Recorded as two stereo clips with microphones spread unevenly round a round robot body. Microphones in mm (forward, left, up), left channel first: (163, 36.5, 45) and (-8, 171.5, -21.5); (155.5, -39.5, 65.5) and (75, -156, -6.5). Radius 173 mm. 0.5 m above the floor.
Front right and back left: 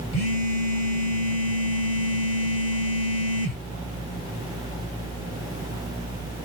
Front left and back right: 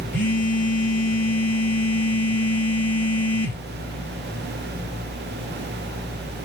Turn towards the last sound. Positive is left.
turn(degrees=-35)